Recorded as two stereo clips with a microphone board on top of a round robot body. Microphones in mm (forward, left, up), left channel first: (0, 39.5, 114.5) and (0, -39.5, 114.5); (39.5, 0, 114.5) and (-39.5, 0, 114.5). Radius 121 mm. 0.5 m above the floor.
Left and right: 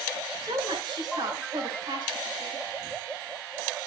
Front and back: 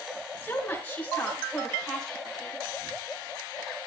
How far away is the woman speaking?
About 4.5 m.